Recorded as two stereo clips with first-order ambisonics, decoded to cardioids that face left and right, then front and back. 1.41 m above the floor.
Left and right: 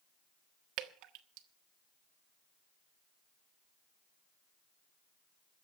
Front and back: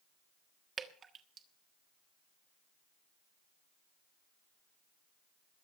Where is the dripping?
115° right, 1.4 m.